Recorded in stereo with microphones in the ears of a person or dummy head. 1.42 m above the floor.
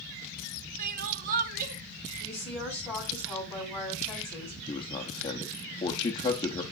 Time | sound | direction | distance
0.8 | crying | 40° right (ahead or behind) | 0.7 m
2.2 | a woman speaking | 5° left (ahead or behind) | 5 m
4.7 | a man speaking | 20° left (ahead or behind) | 0.6 m